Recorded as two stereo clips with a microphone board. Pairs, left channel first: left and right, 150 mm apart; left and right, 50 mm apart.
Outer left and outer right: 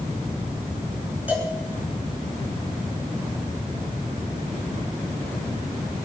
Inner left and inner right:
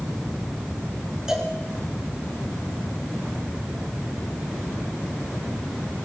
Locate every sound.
1.3 s a cowbell: 10° right (ahead or behind), 4.5 m